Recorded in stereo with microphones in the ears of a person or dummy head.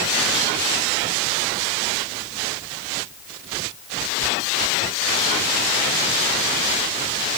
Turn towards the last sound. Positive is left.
No sound to turn to.